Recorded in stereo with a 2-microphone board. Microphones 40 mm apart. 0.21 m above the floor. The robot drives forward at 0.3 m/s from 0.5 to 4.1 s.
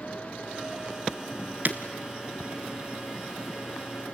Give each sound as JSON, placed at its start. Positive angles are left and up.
{"t": 1.6, "sound": "breaking glass", "side_deg": -50, "distance_m": 1.2}